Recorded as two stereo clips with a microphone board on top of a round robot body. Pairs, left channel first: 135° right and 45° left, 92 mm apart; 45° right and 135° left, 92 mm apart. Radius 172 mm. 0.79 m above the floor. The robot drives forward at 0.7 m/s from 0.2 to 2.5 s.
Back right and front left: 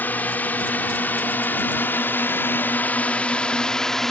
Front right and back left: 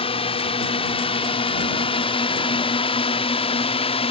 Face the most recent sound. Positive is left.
turn(degrees=-50)